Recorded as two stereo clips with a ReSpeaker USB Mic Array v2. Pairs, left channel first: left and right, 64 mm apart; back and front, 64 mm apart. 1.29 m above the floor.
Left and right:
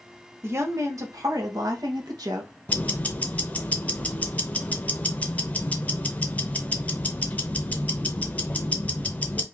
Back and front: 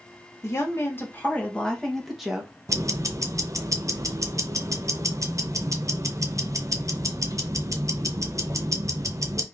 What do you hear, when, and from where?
0.4 s a woman speaking: 140° right, 1.3 m; by 2.5 s 80° right, 1.2 m
2.7 s ticking: 25° left, 0.6 m